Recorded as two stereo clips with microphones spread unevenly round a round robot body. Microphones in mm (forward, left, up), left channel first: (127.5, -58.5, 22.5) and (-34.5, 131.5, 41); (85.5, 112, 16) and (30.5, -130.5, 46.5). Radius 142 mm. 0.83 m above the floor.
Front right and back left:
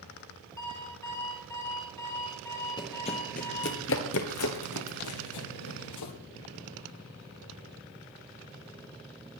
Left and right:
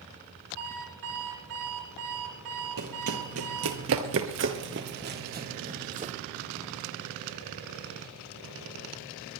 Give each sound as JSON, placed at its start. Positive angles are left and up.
{"t": 0.6, "sound": "an alarm clock", "azimuth_deg": -130, "distance_m": 6.0}
{"t": 2.8, "sound": "running footsteps", "azimuth_deg": -125, "distance_m": 1.6}